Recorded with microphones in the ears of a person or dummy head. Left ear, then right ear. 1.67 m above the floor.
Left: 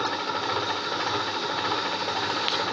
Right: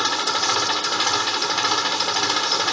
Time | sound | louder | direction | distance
0.0 | an engine running | right 6 dB | 75° right (ahead or behind) | ?